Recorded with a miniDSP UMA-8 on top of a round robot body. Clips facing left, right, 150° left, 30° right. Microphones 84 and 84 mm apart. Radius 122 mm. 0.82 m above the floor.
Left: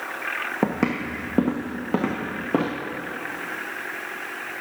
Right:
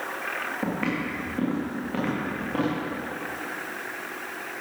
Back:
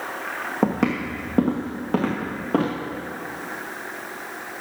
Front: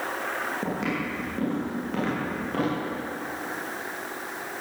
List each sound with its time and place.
0.6 s footsteps: 115° left, 1.7 m; by 2.8 s 95° left, 3 m